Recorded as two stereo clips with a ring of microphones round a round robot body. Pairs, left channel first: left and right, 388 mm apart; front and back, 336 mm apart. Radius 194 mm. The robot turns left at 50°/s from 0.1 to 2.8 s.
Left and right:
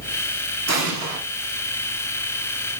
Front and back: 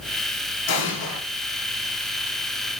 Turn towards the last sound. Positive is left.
turn(degrees=-140)